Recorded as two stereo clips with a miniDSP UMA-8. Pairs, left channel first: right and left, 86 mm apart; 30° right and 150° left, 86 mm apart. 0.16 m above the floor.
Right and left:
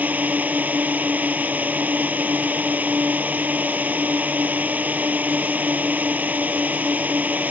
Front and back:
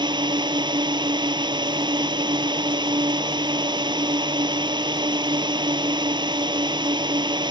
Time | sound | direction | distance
0.0 | a drone | 160° left | ?